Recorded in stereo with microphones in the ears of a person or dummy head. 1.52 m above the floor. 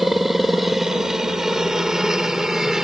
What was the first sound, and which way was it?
A helicopter, 5° right (ahead or behind).